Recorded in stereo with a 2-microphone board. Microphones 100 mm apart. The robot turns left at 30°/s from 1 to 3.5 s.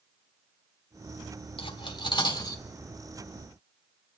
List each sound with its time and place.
1.6 s cutlery clinking: 60° left (ahead or behind), 1.3 m; by 2.6 s 40° left (ahead or behind), 1.3 m